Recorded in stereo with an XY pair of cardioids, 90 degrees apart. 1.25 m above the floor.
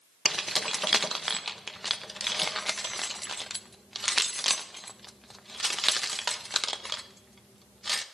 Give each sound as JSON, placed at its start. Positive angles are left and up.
{"t": 0.2, "sound": "keys jangling", "azimuth_deg": -10, "distance_m": 0.9}